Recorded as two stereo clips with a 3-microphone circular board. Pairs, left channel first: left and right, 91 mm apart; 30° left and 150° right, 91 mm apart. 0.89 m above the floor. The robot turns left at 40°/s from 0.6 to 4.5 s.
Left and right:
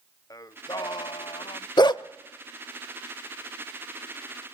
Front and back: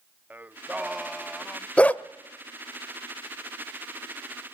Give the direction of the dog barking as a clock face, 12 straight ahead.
9 o'clock.